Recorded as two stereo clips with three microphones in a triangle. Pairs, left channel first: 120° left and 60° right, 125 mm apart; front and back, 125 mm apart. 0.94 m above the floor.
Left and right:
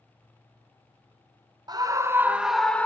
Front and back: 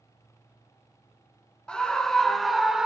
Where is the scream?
75° right, 1.0 m; by 2.9 s 110° left, 0.8 m.